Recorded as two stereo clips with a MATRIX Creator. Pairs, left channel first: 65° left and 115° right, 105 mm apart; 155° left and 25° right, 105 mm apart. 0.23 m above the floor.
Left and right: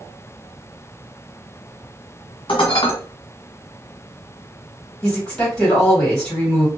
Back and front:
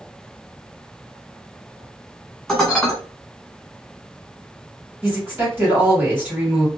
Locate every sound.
2.5 s dishes clattering: 75° left, 1.5 m
5.0 s a woman speaking: 5° left, 1.6 m